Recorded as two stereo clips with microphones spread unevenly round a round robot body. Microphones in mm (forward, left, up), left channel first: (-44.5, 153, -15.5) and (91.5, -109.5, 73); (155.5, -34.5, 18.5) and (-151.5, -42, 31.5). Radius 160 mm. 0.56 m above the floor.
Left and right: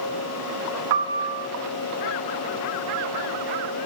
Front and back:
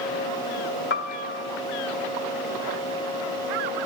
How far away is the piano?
About 1.7 m.